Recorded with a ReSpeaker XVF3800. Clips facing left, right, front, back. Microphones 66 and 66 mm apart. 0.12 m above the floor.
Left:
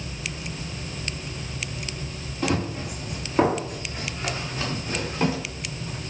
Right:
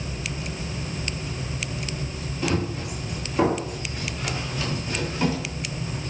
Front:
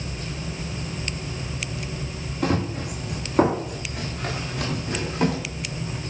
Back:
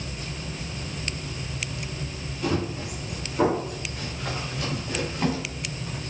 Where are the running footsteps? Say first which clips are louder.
Even, front 3 dB; 25° left, 6 m.